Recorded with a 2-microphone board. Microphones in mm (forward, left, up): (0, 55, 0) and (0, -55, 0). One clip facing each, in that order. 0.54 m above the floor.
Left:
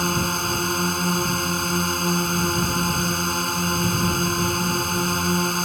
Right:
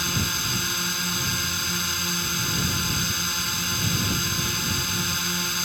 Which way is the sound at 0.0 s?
45° left (ahead or behind).